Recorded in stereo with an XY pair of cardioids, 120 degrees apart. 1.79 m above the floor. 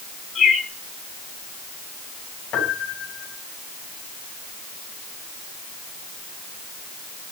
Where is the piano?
70° left, 7 m.